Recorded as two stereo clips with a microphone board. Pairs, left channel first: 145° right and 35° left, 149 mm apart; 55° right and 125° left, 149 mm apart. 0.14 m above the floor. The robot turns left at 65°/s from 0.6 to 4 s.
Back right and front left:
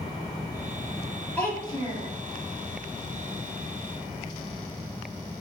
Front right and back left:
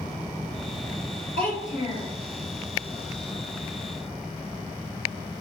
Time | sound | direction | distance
1.4 | a child speaking | 65° right | 1.7 m